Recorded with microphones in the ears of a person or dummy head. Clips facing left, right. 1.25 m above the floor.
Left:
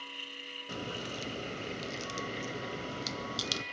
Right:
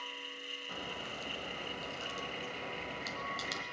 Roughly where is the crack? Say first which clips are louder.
Left 6 dB; left.